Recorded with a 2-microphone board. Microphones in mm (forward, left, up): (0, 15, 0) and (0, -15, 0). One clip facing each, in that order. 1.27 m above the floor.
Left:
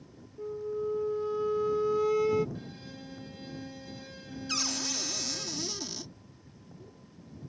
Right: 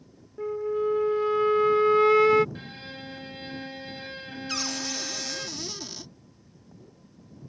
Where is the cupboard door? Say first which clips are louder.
Right 2 dB; 10° right (ahead or behind).